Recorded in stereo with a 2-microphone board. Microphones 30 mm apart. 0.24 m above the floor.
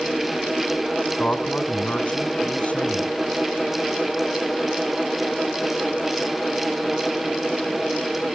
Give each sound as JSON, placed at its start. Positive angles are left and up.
{"t": 1.2, "sound": "a man speaking", "side_deg": 50, "distance_m": 1.7}